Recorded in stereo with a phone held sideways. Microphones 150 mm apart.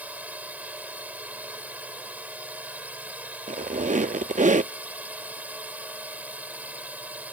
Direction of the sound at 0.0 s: 10° right (ahead or behind).